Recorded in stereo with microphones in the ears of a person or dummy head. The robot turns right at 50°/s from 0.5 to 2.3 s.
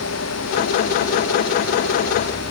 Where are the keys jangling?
No keys jangling in this recording.